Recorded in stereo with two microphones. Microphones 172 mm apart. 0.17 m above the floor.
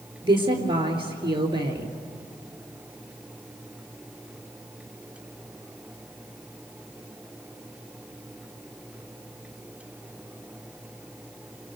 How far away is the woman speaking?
About 3.5 m.